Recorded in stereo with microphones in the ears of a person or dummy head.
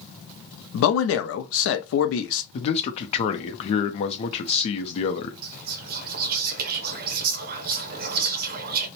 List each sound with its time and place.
0.7 s a man speaking: 75° left (ahead or behind), 0.6 m
2.5 s a man speaking: 35° left (ahead or behind), 0.5 m
5.4 s whispering: 55° right (ahead or behind), 0.5 m